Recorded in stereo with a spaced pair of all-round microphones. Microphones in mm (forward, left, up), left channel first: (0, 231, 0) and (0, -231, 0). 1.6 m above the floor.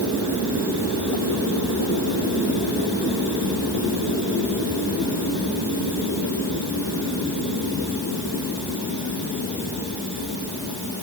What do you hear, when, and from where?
Only background noise.